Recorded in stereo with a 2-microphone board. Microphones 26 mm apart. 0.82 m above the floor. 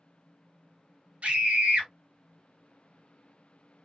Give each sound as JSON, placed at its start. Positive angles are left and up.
{"t": 1.2, "sound": "a scream", "side_deg": -65, "distance_m": 1.7}